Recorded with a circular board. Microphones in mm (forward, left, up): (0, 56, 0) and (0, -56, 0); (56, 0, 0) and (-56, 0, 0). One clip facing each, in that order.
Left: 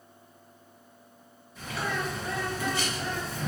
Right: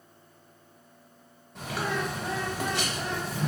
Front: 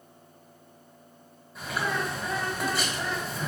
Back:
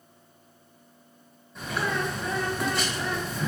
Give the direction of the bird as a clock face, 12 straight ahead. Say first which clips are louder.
Right 2 dB, back 1 dB; 3 o'clock.